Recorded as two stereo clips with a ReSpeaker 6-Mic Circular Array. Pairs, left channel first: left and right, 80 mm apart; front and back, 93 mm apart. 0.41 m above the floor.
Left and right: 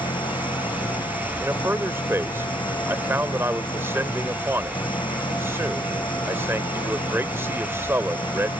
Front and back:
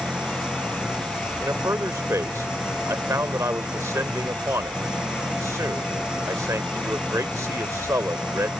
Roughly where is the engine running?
Left.